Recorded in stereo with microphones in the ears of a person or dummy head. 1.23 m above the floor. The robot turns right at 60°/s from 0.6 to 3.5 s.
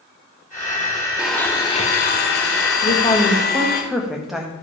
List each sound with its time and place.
1.2 s a blender: 5° right, 1.2 m; by 3.8 s 135° left, 1.2 m
2.8 s a woman speaking: 140° left, 1.5 m; by 4.5 s straight behind, 1.5 m